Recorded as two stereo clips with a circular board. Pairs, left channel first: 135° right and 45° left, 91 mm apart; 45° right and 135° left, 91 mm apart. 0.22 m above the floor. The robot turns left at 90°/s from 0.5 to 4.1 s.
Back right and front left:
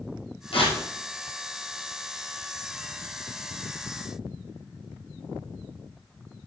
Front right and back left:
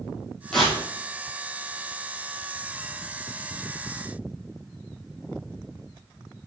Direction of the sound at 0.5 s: 125° right.